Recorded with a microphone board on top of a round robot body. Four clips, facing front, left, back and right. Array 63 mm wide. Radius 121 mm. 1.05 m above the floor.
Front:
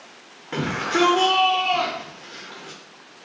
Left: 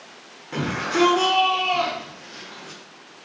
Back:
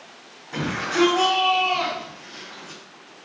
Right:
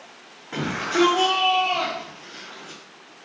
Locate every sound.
0.5 s a shout: 5° left, 0.9 m